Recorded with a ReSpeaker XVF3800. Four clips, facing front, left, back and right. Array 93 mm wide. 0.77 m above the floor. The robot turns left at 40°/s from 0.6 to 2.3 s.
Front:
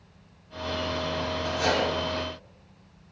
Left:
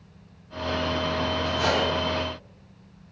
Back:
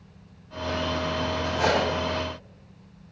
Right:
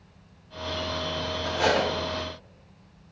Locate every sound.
1.4 s cutlery clinking: 120° right, 1.0 m; by 1.9 s 135° right, 1.0 m